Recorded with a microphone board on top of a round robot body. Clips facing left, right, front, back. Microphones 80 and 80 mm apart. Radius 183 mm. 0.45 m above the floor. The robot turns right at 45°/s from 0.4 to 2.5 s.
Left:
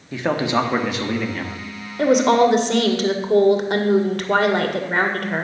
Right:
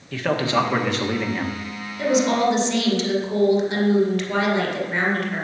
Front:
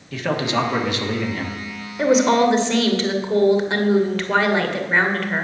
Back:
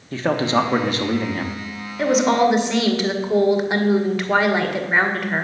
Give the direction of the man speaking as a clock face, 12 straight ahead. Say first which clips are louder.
Left 1 dB, back 3 dB; 7 o'clock.